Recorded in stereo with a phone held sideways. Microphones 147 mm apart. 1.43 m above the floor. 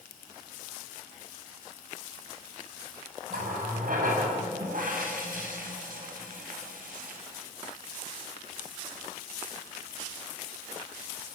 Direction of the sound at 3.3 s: 65° right (ahead or behind).